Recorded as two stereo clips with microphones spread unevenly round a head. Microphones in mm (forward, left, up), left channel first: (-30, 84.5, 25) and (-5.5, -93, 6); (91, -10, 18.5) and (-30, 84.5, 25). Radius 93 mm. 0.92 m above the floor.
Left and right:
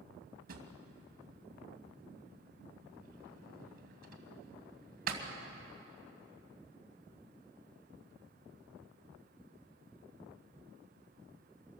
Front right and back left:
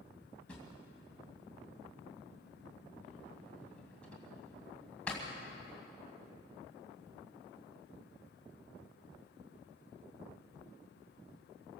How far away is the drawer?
About 2.5 m.